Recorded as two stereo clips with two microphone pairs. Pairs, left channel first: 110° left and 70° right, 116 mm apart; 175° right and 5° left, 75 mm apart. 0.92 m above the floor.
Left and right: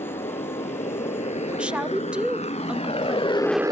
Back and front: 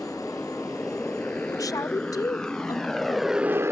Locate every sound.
0.0 s a motorcycle: 110° left; by 3.7 s 40° right
1.5 s a woman speaking: 145° right